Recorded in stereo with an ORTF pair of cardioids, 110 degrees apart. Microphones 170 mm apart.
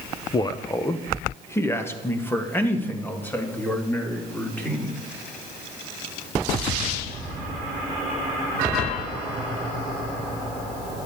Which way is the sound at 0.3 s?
25° left.